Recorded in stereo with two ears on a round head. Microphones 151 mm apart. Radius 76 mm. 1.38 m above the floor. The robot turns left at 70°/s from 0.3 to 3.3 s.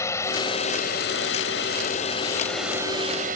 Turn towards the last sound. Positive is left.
turn(degrees=-50)  # may be behind; listen again after turning